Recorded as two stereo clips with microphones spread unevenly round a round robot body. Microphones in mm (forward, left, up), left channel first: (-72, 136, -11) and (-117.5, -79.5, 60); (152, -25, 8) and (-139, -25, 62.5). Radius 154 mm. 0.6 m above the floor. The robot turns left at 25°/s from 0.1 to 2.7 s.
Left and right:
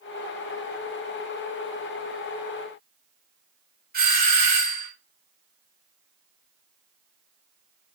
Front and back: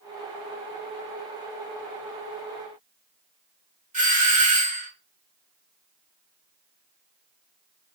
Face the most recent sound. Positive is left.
turn(degrees=-125)